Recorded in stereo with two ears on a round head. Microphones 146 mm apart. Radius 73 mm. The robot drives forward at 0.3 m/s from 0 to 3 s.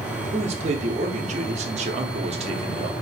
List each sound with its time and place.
0.3 s a man speaking: 40° right (ahead or behind), 0.8 m; by 2.9 s 35° right (ahead or behind), 0.8 m